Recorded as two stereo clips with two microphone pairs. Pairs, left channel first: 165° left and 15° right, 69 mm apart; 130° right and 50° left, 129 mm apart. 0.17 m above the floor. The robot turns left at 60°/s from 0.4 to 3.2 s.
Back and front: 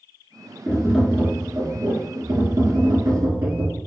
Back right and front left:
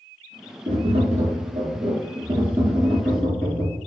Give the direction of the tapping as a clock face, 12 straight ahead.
9 o'clock.